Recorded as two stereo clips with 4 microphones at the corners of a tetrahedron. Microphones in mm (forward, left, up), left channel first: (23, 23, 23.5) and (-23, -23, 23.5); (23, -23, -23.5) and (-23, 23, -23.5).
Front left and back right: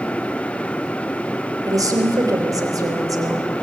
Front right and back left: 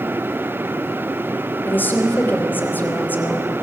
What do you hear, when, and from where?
1.7 s a woman speaking: 105° right, 3.5 m